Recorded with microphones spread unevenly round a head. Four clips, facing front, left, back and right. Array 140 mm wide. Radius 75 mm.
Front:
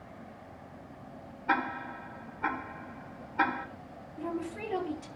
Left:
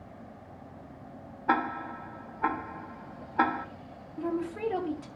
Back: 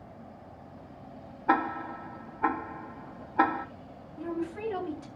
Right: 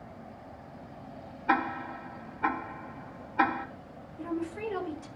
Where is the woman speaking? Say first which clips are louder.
Left 3 dB, back 2 dB; 80° left, 4 m.